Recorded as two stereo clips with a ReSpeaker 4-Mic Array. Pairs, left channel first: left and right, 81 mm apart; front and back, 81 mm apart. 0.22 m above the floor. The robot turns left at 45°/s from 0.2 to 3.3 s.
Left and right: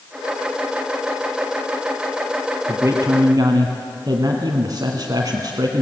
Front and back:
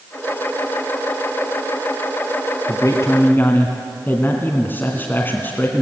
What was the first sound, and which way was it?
A man speaking, 30° right.